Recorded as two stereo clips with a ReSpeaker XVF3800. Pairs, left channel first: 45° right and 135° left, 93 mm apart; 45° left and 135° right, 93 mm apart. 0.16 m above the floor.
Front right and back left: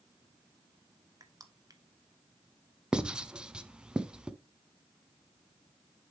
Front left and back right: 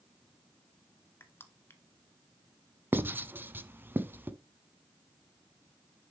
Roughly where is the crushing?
Left.